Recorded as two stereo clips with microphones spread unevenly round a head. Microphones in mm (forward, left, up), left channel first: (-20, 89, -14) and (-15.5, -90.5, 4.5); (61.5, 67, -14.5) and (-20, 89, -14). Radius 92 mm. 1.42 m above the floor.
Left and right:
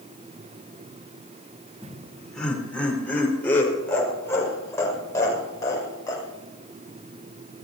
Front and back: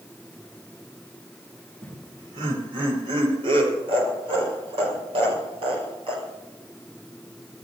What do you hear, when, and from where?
1.8 s laughter: straight behind, 3.5 m; by 6.2 s 165° left, 6.5 m